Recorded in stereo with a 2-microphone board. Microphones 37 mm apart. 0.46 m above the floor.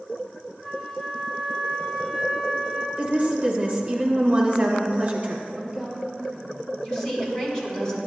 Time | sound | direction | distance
0.6 | a flute | 10° left (ahead or behind) | 1.8 m
3.0 | a woman speaking | 40° right (ahead or behind) | 1.4 m
5.5 | a woman speaking | 15° right (ahead or behind) | 2 m
6.8 | a woman speaking | 15° left (ahead or behind) | 2 m